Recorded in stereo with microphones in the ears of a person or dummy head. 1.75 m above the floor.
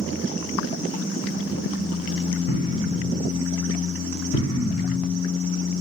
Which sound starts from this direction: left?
An explosion, at 2.5 s.